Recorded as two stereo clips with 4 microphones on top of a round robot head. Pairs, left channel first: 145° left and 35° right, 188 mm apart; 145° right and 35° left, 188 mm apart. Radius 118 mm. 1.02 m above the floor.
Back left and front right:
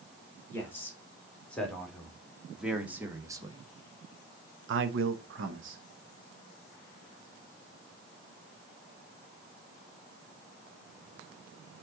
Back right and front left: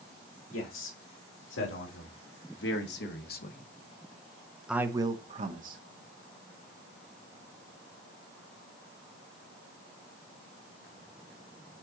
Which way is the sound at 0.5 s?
135° right.